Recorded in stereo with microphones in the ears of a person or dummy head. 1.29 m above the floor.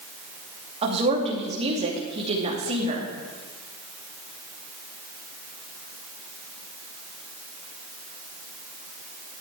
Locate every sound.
0.8 s a woman speaking: 30° right (ahead or behind), 2.5 m